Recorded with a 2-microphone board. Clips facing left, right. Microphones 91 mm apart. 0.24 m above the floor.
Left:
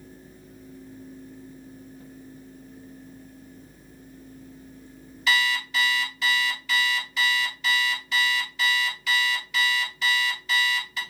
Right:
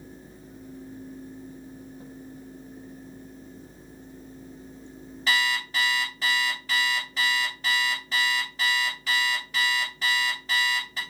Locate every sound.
5.3 s an alarm clock: 35° right (ahead or behind), 2.0 m